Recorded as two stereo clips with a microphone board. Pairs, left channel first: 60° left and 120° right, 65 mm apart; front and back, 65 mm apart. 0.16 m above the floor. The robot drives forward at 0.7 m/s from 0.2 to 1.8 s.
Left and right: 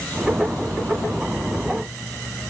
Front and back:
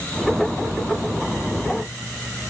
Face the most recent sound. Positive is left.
No sound to turn to.